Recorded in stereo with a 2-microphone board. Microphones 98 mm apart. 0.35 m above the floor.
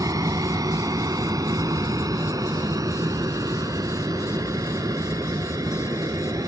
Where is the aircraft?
35° right (ahead or behind).